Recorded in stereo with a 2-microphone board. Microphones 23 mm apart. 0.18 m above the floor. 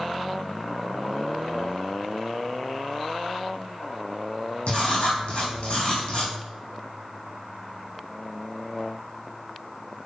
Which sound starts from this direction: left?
Writing, at 4.7 s.